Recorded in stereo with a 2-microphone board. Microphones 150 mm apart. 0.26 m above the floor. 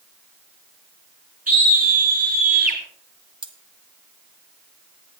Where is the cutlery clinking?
35° right (ahead or behind), 1.2 m.